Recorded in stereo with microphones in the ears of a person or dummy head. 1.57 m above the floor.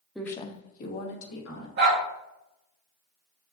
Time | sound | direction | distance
0.1 | a woman speaking | centre (ahead or behind) | 0.6 m
1.8 | a dog barking | 50° right (ahead or behind) | 1.7 m